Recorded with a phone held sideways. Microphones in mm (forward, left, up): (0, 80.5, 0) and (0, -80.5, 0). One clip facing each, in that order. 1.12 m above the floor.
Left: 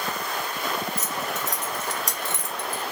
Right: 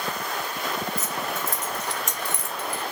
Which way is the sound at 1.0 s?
75° left (ahead or behind).